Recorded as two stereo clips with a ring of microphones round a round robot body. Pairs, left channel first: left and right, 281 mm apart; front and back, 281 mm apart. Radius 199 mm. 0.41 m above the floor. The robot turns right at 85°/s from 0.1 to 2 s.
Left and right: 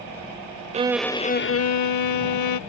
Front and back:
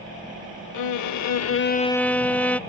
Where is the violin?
20° right; by 2.6 s 85° left.